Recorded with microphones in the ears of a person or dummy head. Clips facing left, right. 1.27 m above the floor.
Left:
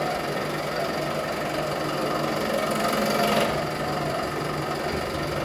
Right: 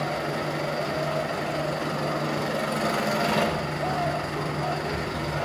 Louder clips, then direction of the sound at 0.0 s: Left 1 dB; 45° left (ahead or behind).